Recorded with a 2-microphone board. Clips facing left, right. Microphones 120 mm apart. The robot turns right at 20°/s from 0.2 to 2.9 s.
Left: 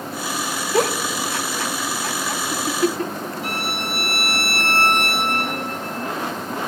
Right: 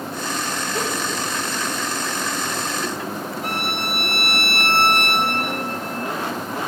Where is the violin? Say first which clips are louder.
Right 2 dB; 55° right (ahead or behind), 3 m.